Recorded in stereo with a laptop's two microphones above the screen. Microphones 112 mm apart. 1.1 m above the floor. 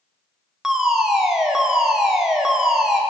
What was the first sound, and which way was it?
A fire alarm, 5° right (ahead or behind).